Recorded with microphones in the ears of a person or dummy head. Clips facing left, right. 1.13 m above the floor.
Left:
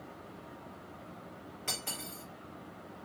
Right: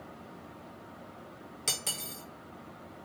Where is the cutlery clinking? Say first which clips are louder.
Right 1 dB; 45° right (ahead or behind), 0.7 m.